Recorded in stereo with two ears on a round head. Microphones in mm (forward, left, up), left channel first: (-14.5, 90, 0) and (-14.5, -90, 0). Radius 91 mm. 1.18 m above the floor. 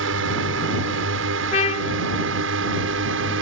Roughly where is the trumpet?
Left.